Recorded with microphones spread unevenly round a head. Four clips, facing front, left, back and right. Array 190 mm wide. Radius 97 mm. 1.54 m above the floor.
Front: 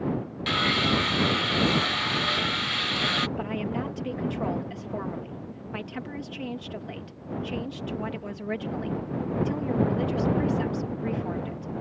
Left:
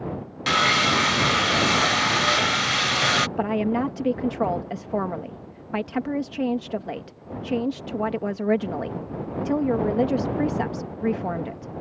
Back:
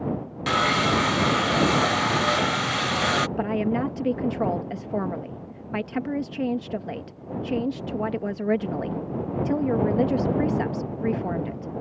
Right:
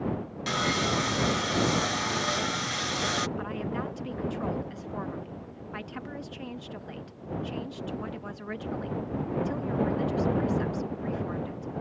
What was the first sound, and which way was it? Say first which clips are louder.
Sawing: left 7 dB, back 4 dB; 155° left.